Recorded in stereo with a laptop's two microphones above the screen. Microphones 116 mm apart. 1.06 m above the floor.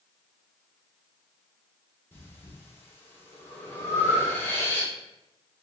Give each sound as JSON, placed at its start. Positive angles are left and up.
{"t": 2.1, "sound": "breathing", "side_deg": 20, "distance_m": 1.2}